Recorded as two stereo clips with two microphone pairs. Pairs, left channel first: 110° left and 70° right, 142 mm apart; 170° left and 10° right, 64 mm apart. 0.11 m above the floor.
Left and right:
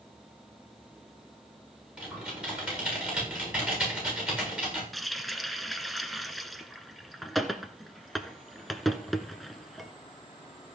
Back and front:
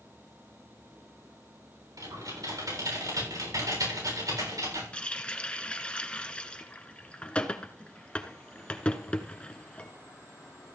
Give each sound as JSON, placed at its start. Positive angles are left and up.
{"t": 2.0, "sound": "typing on a keyboard", "azimuth_deg": 10, "distance_m": 7.5}
{"t": 4.9, "sound": "a running tap", "azimuth_deg": -170, "distance_m": 0.8}